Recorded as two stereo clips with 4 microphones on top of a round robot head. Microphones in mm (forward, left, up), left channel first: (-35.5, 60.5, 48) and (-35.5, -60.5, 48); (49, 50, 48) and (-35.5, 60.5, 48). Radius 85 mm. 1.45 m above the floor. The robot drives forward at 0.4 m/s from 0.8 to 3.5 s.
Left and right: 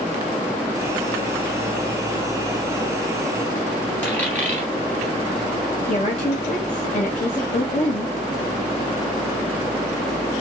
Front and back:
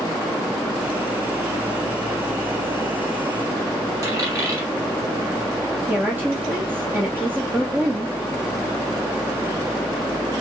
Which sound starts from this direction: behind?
A dropped coin, at 4.0 s.